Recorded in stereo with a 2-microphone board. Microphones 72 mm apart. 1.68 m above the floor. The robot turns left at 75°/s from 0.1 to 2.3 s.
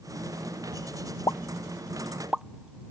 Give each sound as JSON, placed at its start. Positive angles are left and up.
{"t": 1.3, "sound": "a pop", "side_deg": 65}